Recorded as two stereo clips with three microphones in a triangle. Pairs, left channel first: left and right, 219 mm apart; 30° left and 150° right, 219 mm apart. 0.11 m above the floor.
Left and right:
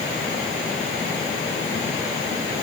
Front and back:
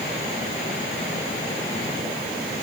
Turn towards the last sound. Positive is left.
No sound to turn to.